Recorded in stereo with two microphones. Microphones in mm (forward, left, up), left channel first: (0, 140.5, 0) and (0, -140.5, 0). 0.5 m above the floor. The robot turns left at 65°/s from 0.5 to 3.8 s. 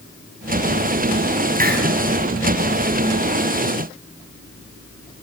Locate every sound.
1.6 s a hiss: 30° right (ahead or behind), 4.5 m; by 1.9 s 45° right (ahead or behind), 4.5 m